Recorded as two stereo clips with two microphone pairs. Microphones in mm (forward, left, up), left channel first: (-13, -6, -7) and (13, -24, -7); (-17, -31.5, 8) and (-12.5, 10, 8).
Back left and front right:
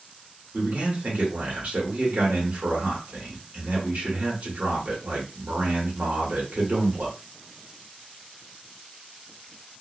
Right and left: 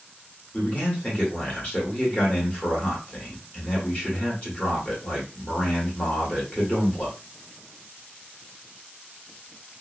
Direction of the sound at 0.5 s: 40° right.